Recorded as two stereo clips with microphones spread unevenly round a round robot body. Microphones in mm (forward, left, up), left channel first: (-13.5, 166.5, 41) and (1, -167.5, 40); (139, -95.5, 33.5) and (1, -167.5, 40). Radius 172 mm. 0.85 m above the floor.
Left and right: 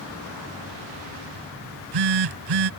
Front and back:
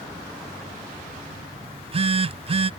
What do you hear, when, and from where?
1.6 s a phone buzzing: 100° right